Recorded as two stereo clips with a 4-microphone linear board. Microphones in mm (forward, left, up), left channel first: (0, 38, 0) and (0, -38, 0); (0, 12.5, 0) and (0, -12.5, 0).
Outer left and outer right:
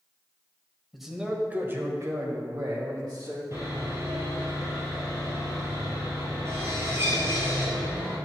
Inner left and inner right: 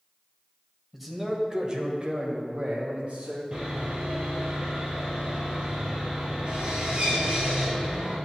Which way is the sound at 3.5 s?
35° right (ahead or behind).